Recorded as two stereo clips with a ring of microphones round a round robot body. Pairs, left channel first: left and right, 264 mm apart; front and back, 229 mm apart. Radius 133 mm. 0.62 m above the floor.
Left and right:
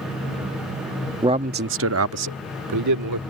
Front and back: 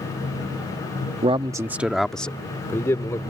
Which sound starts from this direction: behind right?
A man speaking, at 1.2 s.